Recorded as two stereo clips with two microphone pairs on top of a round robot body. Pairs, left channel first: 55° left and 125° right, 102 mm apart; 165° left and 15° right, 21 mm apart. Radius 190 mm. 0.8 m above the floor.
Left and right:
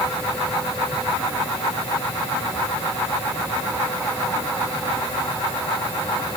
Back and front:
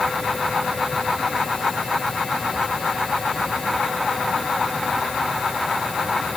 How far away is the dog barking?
I don't hear a dog barking.